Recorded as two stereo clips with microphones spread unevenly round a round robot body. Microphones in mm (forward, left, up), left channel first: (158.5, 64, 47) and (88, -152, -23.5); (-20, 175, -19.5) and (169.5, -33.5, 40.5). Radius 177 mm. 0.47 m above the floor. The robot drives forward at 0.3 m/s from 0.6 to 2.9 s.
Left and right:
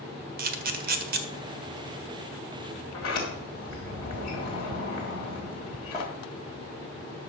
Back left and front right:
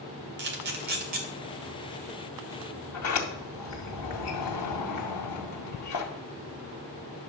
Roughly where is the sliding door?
Behind left.